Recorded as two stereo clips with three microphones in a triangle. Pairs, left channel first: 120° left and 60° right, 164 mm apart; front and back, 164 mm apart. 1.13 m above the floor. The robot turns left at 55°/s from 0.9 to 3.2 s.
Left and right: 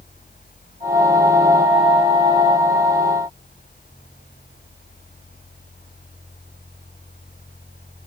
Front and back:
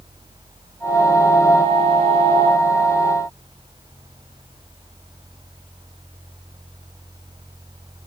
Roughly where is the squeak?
I don't hear a squeak.